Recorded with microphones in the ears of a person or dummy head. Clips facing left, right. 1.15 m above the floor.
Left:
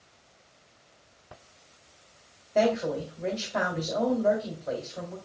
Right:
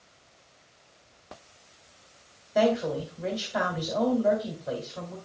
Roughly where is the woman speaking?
Centre.